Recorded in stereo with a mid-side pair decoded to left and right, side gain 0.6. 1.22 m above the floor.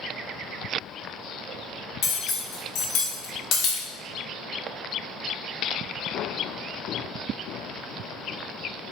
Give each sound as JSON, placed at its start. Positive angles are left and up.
{"t": 2.0, "sound": "cutlery clinking", "azimuth_deg": 60, "distance_m": 0.8}